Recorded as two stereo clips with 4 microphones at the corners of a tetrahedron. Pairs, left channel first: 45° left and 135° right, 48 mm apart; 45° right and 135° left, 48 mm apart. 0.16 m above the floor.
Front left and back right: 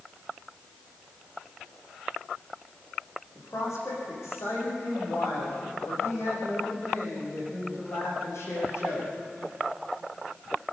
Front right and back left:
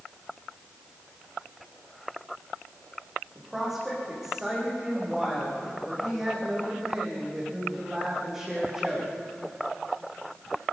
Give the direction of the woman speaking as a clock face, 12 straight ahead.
10 o'clock.